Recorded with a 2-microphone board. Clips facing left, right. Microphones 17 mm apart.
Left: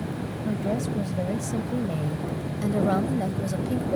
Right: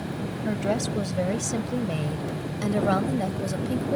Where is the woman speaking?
55° right (ahead or behind); by 4.0 s 5° right (ahead or behind).